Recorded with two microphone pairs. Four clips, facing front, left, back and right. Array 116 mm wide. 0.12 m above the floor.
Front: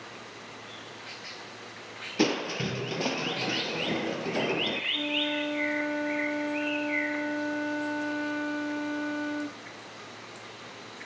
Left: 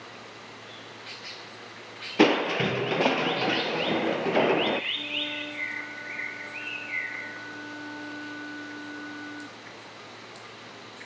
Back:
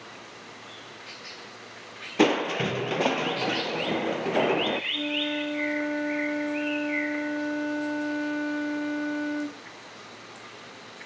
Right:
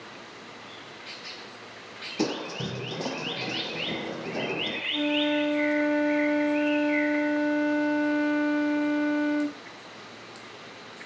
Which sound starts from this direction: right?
A flute, at 4.9 s.